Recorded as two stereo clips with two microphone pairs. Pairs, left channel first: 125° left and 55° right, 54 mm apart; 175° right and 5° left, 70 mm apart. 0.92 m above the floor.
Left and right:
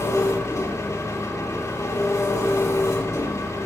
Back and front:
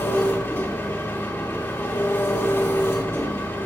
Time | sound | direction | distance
0.0 | an engine running | 130° left | 2.5 m